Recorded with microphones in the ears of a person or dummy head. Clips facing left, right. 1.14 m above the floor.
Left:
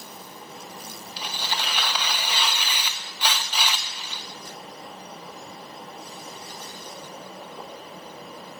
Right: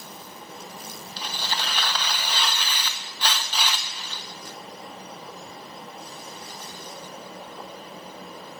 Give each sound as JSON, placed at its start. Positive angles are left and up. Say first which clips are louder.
{"t": 1.2, "sound": "tearing paper", "louder": "even", "side_deg": 5, "distance_m": 0.7}